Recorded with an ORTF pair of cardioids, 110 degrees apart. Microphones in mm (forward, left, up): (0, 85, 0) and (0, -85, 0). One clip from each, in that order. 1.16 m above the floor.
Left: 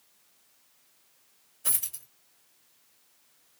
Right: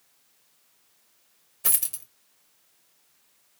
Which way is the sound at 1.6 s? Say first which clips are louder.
Right 4 dB; 65° right.